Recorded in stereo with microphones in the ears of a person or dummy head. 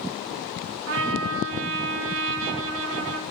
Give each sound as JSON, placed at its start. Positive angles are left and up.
{"t": 0.9, "sound": "a trumpet", "side_deg": -70, "distance_m": 4.0}